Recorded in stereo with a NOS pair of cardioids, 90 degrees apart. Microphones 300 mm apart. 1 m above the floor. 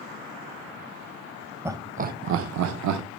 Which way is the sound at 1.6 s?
10° right.